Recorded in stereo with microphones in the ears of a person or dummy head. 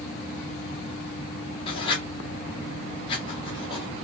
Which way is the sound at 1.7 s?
30° left (ahead or behind).